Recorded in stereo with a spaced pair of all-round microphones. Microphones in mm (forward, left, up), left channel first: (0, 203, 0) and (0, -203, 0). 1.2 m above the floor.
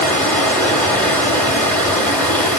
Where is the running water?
5° left (ahead or behind), 2.5 m.